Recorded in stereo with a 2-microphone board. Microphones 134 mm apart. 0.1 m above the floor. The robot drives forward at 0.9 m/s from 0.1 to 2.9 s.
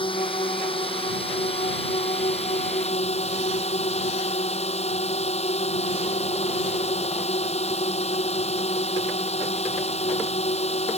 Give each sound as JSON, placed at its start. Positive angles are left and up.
{"t": 0.0, "sound": "a drone", "side_deg": 40}